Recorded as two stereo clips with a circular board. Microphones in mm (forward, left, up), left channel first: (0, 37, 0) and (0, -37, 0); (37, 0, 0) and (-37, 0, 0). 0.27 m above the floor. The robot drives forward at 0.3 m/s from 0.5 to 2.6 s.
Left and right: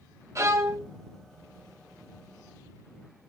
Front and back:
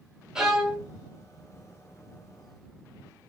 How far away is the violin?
About 1.4 m.